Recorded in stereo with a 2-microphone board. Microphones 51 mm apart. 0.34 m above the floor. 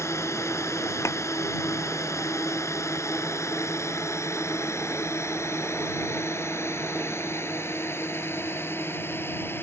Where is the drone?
70° left (ahead or behind); by 9.6 s 50° left (ahead or behind).